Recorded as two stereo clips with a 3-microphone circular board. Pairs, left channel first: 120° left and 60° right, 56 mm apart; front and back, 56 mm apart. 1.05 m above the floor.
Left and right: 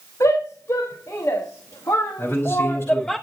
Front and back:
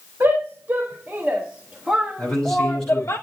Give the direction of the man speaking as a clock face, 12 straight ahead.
9 o'clock.